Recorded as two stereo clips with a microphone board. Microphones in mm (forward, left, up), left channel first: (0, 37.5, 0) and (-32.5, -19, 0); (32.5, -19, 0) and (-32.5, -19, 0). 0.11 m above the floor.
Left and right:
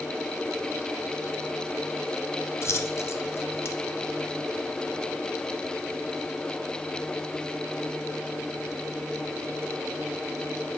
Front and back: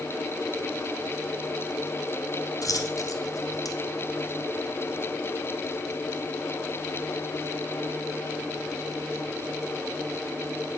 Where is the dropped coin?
15° left, 1.4 m.